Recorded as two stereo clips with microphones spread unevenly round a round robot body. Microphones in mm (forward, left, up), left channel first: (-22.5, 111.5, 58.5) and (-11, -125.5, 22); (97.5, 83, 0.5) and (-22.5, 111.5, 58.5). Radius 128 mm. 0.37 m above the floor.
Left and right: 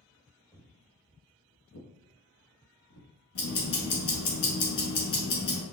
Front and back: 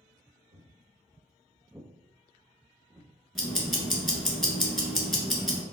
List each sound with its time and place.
0.5 s footsteps: 170° left, 0.9 m; by 3.1 s 80° left, 1.7 m
3.4 s ticking: 80° left, 1.2 m